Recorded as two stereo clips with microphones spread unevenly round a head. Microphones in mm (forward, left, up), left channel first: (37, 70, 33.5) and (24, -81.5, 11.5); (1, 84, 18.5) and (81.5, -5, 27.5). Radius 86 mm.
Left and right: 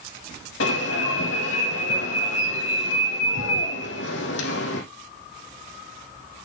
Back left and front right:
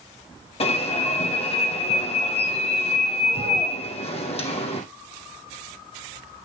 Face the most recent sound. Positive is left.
turn(degrees=100)